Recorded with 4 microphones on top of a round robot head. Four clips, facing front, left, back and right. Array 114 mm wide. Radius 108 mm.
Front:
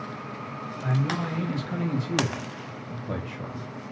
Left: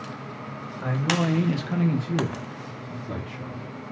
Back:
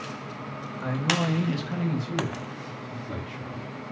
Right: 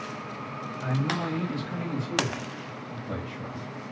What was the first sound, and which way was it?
A man speaking, 120° left.